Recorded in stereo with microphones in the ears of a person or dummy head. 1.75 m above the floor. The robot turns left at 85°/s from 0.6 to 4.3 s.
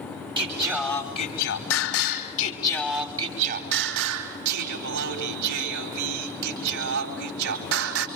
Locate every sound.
0.4 s singing: 160° right, 4.5 m; by 8.1 s 110° right, 4.5 m